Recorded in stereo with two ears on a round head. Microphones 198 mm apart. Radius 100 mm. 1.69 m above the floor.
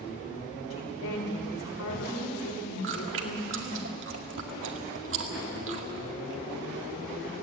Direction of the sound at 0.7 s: 80° left.